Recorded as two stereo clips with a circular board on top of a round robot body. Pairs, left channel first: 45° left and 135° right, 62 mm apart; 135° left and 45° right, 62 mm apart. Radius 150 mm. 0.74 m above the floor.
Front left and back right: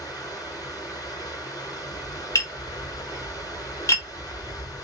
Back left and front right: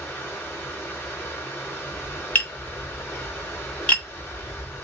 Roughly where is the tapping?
Left.